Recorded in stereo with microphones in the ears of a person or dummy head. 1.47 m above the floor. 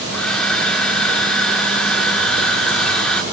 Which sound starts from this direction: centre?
A hair dryer, at 0.1 s.